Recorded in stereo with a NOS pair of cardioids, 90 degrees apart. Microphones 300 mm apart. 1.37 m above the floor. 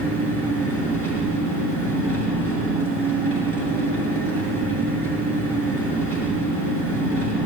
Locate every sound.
0.0 s an engine running: 55° right, 6 m